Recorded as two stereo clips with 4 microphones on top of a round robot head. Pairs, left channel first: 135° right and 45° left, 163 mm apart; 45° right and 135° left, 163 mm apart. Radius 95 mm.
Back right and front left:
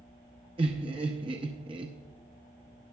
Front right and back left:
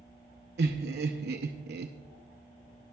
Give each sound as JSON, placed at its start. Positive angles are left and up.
{"t": 0.6, "sound": "laughter", "azimuth_deg": 110, "distance_m": 0.6}